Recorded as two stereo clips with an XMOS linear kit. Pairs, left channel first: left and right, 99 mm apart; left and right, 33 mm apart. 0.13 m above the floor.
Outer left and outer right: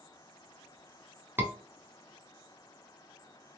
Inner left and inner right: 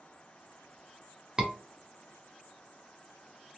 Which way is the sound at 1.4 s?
20° right (ahead or behind).